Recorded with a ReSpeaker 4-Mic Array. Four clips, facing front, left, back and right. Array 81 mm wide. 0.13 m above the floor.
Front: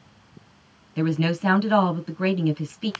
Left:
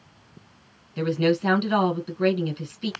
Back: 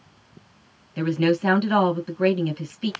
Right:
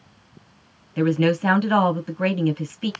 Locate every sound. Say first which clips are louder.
1.0 s a woman speaking: right 3 dB, back 3 dB; 90° right, 1.5 m